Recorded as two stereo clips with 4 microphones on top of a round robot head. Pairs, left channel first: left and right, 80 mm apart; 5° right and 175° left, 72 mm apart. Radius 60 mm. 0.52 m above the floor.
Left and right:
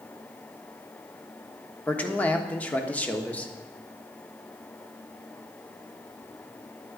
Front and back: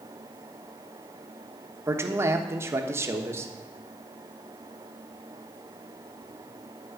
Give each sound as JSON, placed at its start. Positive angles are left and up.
{"t": 1.9, "sound": "a man speaking", "azimuth_deg": 155, "distance_m": 1.3}